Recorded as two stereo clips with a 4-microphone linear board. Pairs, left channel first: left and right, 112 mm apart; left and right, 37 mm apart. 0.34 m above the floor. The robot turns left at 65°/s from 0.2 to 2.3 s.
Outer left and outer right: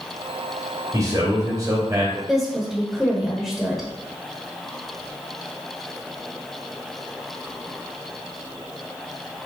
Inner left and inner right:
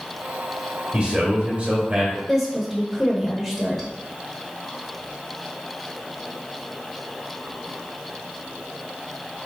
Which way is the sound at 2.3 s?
Centre (ahead or behind).